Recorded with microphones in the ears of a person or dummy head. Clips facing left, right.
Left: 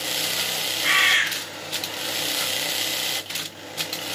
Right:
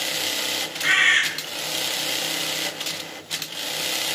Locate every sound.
0.8 s a bird: 15° right (ahead or behind), 0.8 m